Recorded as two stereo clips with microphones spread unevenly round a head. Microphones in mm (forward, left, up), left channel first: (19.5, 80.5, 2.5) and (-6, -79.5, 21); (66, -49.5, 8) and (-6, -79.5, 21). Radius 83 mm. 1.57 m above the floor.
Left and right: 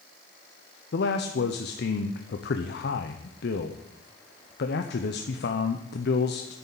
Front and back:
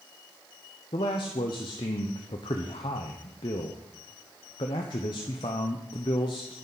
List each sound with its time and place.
0.9 s a man speaking: 60° left, 0.9 m